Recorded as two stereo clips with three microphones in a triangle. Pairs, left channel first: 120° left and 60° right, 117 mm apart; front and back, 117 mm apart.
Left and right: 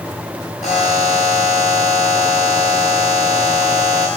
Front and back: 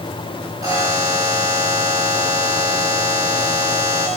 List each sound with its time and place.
0.6 s a buzzer: 120° left, 8.5 m